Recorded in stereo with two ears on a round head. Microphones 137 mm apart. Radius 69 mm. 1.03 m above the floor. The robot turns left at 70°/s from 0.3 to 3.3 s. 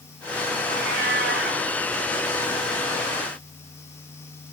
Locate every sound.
0.7 s a cat meowing: 50° right, 7 m; by 1.6 s 115° right, 7 m